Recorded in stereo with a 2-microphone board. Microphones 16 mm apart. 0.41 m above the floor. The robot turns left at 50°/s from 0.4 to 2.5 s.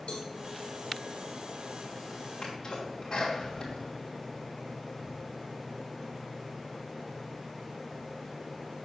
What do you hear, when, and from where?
0.1 s a cowbell: 55° left (ahead or behind), 2 m
2.4 s a sneeze: 45° left (ahead or behind), 3 m; by 5.1 s 40° left (ahead or behind), 3 m